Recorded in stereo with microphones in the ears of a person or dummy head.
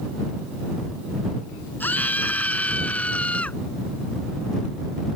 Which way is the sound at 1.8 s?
10° left (ahead or behind).